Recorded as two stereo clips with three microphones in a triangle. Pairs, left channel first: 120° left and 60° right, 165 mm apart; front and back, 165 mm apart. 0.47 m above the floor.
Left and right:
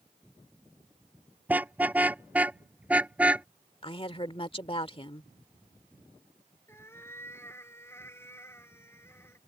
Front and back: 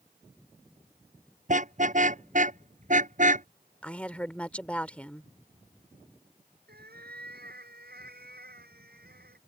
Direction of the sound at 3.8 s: 80° left.